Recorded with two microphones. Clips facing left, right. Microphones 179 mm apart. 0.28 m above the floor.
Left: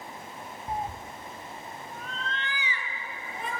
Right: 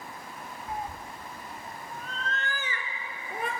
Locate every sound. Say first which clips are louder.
0.7 s a cat meowing: left 3 dB; 40° left (ahead or behind), 1.2 m; by 3.5 s 60° right (ahead or behind), 3.5 m